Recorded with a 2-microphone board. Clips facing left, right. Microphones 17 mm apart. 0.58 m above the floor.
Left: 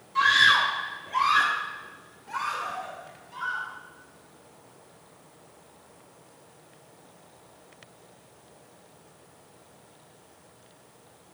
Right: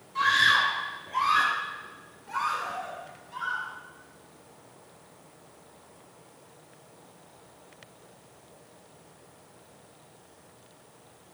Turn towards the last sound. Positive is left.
turn(degrees=5)  # may be behind; listen again after turning